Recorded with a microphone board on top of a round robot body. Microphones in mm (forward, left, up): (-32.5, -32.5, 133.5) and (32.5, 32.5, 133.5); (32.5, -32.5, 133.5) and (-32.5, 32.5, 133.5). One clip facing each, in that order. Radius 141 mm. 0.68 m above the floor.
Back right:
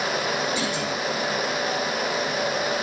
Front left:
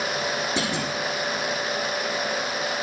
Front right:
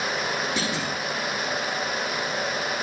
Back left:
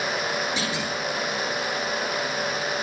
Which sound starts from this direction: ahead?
A clunk, at 0.6 s.